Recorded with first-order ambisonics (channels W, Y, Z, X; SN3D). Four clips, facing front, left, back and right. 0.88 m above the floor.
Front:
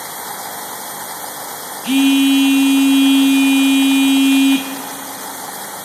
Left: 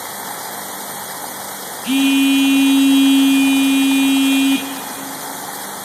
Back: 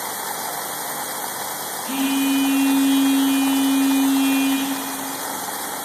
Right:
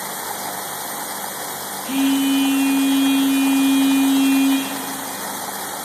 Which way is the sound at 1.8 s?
40° left.